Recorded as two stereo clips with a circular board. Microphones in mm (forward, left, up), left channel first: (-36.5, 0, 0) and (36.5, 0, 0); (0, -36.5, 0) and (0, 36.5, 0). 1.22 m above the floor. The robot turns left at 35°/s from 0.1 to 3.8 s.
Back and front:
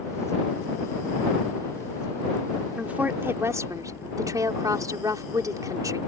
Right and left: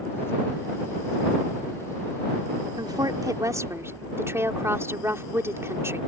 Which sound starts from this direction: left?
A woman speaking, at 2.8 s.